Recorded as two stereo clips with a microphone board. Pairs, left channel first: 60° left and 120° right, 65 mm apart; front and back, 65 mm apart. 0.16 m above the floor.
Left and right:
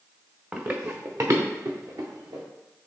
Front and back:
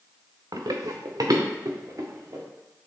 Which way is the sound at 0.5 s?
170° left.